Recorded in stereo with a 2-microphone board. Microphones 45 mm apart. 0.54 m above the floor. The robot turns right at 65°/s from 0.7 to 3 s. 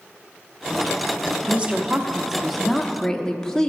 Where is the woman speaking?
25° right (ahead or behind), 0.8 m; by 3.7 s 15° left (ahead or behind), 0.8 m.